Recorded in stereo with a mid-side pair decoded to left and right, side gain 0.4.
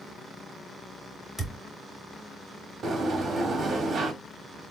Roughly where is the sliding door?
Ahead right.